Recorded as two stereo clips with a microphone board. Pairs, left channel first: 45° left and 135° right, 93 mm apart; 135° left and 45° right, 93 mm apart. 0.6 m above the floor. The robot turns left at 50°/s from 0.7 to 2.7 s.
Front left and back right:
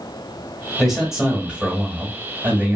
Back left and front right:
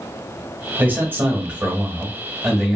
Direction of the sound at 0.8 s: 45° right.